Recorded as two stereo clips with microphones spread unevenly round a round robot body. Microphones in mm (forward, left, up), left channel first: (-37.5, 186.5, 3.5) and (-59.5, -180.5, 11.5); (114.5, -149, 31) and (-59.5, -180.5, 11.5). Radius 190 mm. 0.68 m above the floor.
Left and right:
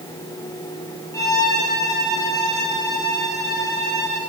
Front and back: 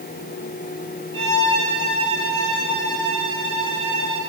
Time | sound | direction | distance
1.1 | a violin | 170° left | 5.5 m